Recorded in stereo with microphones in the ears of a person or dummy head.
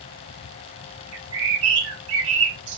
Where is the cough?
No cough in this recording.